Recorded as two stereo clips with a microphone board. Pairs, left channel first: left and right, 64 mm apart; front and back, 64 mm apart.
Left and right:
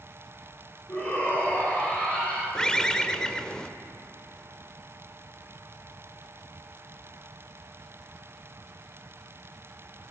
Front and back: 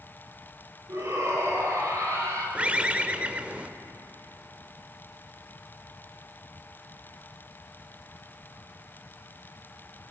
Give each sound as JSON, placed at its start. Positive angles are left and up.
{"t": 0.9, "sound": "a shout", "azimuth_deg": 150, "distance_m": 4.5}
{"t": 2.5, "sound": "a bird", "azimuth_deg": 150, "distance_m": 0.5}